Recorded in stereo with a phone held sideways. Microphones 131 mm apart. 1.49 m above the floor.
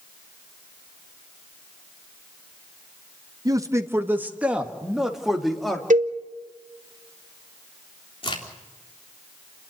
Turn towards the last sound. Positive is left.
turn(degrees=45)  # may be behind; listen again after turning